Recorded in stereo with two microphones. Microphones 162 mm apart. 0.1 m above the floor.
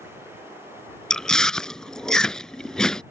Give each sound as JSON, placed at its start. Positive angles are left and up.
{"t": 1.1, "sound": "chewing", "side_deg": 5}